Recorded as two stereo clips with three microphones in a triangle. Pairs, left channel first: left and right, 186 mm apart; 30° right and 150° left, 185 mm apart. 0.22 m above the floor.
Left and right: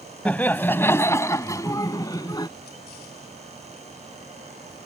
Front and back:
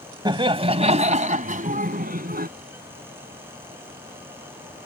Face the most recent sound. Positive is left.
turn(degrees=155)